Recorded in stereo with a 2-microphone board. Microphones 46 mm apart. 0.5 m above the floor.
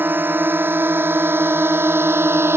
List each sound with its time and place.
0.0 s a drone: 45° right (ahead or behind); by 2.6 s 60° right (ahead or behind)